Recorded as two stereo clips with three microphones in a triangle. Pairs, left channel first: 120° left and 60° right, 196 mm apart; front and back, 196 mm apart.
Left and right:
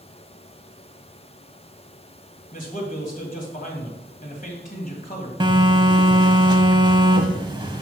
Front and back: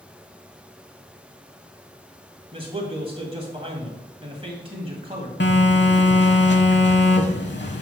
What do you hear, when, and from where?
2.5 s a man speaking: 135° left, 1.7 m
5.4 s a phone buzzing: 5° left, 0.7 m